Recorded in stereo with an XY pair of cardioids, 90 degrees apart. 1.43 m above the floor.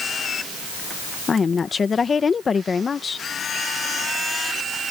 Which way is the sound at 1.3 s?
40° left.